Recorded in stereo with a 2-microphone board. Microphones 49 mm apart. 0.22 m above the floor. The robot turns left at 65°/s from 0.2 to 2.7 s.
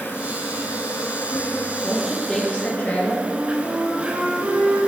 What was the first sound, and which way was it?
An insect, 135° left.